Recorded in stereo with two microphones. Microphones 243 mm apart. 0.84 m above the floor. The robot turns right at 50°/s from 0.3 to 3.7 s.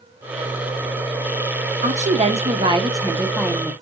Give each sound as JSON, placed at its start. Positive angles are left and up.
{"t": 1.8, "sound": "a woman speaking", "side_deg": -30, "distance_m": 0.7}